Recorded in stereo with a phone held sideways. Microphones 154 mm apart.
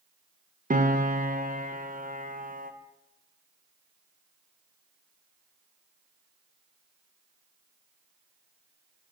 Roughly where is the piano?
Right.